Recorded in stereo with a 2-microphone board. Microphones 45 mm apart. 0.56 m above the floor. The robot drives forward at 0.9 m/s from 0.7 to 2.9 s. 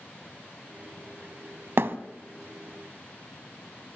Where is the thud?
65° right (ahead or behind), 0.9 m; by 2.0 s 55° right (ahead or behind), 0.9 m.